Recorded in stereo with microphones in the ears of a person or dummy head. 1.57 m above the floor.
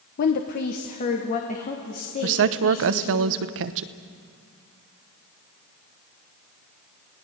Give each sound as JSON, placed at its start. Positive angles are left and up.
{"t": 0.2, "sound": "a woman speaking", "side_deg": 50, "distance_m": 0.9}
{"t": 2.2, "sound": "a woman speaking", "side_deg": -70, "distance_m": 0.9}